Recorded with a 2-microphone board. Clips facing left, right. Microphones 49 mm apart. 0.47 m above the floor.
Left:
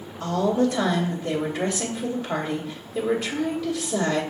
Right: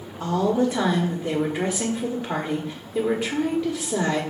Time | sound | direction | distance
0.2 | a woman speaking | 25° right (ahead or behind) | 1.5 m